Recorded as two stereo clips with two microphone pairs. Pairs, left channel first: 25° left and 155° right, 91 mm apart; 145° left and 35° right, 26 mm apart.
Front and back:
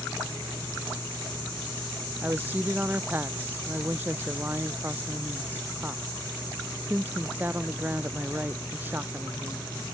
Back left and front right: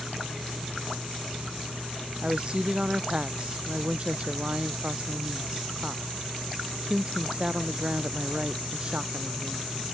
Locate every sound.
2.2 s a woman speaking: 85° right